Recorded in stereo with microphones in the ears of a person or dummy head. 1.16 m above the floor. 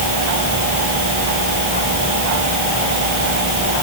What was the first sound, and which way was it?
Only background noise.